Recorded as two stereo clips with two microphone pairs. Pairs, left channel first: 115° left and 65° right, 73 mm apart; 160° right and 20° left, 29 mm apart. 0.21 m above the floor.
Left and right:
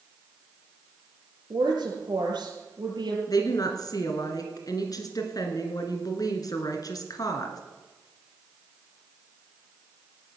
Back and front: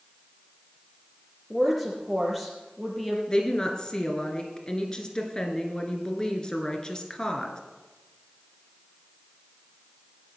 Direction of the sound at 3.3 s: 140° left.